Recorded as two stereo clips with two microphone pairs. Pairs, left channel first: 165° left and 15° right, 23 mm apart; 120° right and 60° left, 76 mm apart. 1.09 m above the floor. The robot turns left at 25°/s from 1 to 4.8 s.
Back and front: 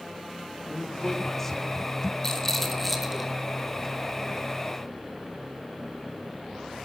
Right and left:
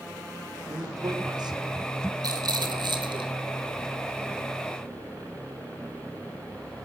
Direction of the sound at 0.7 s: 100° left.